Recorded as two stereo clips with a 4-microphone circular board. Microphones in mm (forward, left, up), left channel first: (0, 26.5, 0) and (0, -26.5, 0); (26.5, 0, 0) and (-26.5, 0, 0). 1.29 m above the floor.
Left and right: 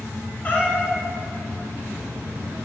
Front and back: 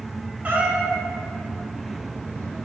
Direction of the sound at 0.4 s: 135° left.